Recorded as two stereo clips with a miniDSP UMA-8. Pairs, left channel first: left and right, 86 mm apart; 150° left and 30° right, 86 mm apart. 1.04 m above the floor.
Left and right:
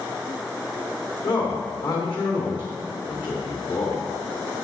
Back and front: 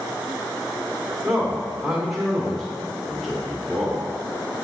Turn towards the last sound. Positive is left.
turn(degrees=60)